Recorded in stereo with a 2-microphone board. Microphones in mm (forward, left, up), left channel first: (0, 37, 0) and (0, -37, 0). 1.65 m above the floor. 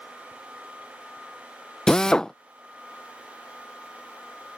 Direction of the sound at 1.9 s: 10° left (ahead or behind).